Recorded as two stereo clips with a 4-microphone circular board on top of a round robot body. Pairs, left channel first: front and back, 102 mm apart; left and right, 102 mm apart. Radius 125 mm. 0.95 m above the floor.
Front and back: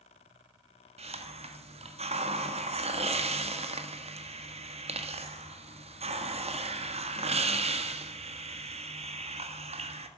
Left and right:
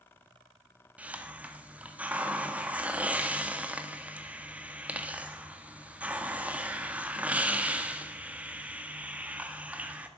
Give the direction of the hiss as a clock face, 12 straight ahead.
6 o'clock.